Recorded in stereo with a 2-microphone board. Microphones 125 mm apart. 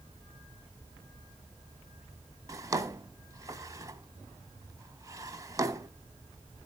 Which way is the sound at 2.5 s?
30° right (ahead or behind).